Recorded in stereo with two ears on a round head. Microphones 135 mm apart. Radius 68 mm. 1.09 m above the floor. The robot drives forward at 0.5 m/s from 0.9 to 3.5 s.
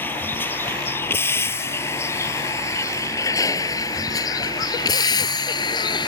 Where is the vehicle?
15° left (ahead or behind); by 6.1 s 30° left (ahead or behind).